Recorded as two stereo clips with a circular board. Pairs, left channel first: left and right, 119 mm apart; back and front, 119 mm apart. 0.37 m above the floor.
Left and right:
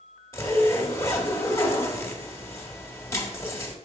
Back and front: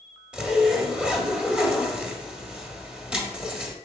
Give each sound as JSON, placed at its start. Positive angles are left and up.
{"t": 0.3, "sound": "a zipper", "azimuth_deg": 70, "distance_m": 1.3}